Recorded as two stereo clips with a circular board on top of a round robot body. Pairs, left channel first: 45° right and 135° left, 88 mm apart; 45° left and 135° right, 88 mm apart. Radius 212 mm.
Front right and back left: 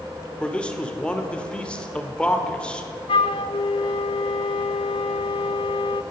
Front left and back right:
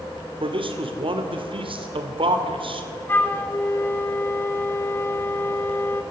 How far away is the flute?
About 0.6 m.